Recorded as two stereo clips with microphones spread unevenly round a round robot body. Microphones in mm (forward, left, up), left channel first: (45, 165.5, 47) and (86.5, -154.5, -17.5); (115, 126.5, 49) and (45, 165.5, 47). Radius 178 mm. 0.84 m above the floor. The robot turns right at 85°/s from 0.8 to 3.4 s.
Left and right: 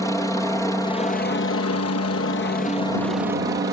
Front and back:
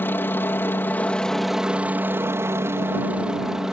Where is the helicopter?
5° left; by 3.7 s 130° right.